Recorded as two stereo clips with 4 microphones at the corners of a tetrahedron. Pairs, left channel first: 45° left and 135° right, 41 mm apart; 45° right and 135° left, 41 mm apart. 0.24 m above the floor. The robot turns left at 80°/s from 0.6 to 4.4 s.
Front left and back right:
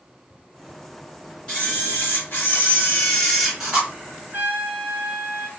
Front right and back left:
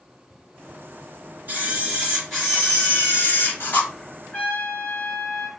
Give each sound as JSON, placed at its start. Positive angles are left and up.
{"t": 1.5, "sound": "a camera shutter", "azimuth_deg": 110, "distance_m": 3.5}
{"t": 4.3, "sound": "a trumpet", "azimuth_deg": -95, "distance_m": 3.0}